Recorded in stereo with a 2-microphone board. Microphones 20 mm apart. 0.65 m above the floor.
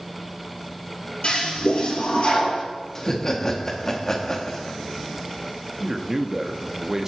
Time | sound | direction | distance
1.2 | a toilet flushing | 55° left (ahead or behind) | 3 m
3.0 | laughter | 25° left (ahead or behind) | 1.0 m
5.8 | a man speaking | 30° right (ahead or behind) | 0.5 m